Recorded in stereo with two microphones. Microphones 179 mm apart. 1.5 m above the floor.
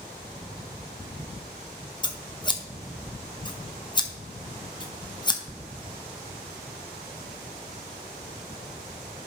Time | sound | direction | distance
2.0 | scissors | 25° left (ahead or behind) | 0.8 m